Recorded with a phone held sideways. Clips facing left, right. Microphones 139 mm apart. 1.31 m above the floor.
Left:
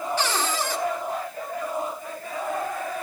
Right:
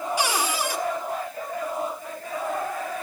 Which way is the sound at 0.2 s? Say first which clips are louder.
Right 2 dB; 10° right (ahead or behind).